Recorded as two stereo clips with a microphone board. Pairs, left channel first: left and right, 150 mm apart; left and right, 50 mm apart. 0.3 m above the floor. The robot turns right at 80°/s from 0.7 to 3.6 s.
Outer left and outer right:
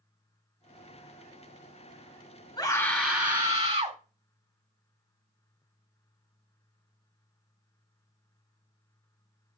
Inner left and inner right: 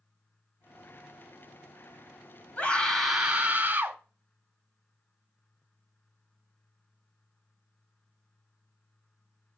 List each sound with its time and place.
2.6 s a scream: 135° left, 1.7 m; by 4.0 s 140° right, 1.7 m